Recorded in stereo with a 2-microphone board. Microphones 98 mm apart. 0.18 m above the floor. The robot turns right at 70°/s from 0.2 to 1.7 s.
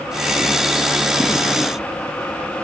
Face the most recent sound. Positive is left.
No sound to turn to.